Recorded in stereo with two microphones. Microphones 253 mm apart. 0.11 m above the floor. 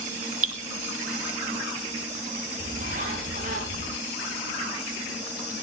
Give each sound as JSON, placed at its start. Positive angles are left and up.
{"t": 0.4, "sound": "dripping", "side_deg": -65, "distance_m": 2.0}
{"t": 2.6, "sound": "a bird", "side_deg": -35, "distance_m": 8.0}